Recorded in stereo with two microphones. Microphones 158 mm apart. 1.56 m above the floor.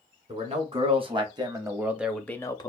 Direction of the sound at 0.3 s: 40° right (ahead or behind).